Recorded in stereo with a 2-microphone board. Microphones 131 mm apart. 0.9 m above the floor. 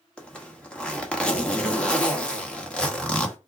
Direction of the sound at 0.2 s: 10° left (ahead or behind).